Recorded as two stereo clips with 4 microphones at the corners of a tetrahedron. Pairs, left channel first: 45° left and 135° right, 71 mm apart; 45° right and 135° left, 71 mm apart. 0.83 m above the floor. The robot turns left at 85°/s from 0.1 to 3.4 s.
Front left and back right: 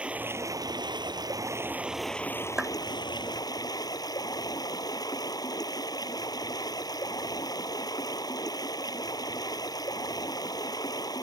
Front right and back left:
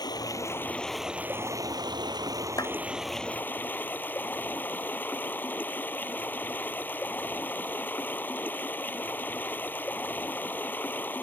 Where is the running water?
60° right; by 11.2 s 20° left.